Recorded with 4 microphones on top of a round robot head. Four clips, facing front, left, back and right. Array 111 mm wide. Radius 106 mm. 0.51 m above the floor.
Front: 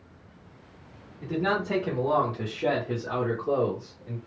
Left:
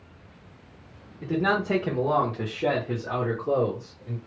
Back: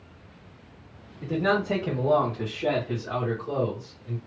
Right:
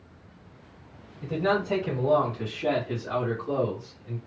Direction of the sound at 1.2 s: 110° left.